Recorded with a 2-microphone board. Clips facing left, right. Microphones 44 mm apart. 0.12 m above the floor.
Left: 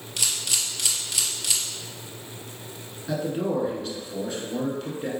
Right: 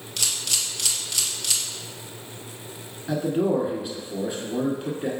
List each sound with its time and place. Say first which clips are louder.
0.2 s a camera shutter: even; 10° left (ahead or behind), 1.1 m
3.1 s a man speaking: right 3 dB; 10° right (ahead or behind), 1.2 m